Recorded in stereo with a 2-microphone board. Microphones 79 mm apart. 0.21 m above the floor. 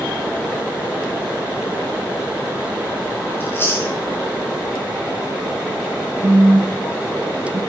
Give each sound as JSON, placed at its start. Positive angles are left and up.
{"t": 3.4, "sound": "chewing", "side_deg": 30, "distance_m": 2.5}
{"t": 6.2, "sound": "a phone buzzing", "side_deg": -70, "distance_m": 3.5}